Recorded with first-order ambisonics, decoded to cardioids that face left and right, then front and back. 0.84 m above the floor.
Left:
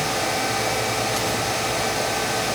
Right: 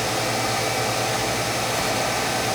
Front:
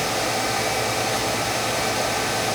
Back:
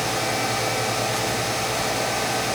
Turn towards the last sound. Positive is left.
No sound to turn to.